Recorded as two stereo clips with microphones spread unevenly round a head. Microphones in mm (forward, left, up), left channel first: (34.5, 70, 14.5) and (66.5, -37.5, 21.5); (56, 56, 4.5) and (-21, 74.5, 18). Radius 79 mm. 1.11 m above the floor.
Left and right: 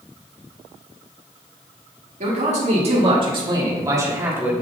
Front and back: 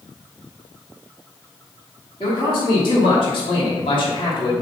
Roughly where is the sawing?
I don't hear sawing.